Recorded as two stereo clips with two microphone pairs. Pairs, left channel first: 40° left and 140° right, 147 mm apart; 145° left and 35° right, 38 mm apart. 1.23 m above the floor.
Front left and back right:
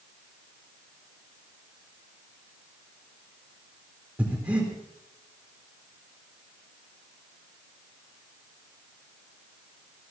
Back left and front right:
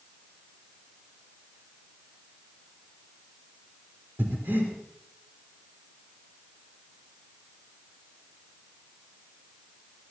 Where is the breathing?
60° right, 4 m.